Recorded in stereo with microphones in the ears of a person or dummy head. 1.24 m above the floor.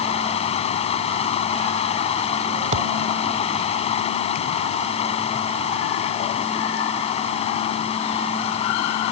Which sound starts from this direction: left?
Running water, at 0.0 s.